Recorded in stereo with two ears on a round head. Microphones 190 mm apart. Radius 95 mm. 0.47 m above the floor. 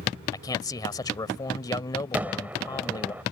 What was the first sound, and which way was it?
A man speaking, 20° left (ahead or behind).